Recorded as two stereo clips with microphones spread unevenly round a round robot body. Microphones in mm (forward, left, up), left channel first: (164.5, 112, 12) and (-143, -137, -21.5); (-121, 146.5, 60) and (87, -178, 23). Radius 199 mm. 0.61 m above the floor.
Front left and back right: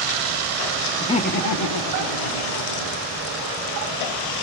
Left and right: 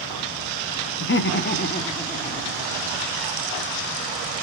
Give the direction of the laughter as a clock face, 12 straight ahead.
8 o'clock.